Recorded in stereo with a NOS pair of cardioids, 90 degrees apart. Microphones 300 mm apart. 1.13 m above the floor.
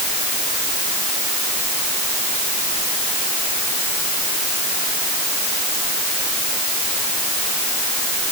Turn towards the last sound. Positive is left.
No sound to turn to.